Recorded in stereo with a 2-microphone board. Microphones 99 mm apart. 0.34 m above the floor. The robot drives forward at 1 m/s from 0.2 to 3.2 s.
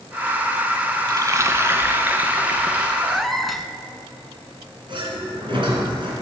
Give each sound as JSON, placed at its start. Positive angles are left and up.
{"t": 1.1, "sound": "frying", "side_deg": -45, "distance_m": 0.8}
{"t": 3.0, "sound": "a cat meowing", "side_deg": 0, "distance_m": 1.0}
{"t": 4.9, "sound": "a sliding door", "side_deg": -55, "distance_m": 3.5}